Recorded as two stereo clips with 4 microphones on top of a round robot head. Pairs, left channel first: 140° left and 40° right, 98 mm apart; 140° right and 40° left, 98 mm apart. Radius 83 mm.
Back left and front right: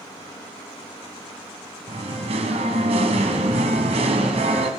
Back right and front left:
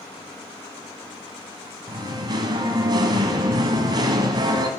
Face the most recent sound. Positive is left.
turn(degrees=-10)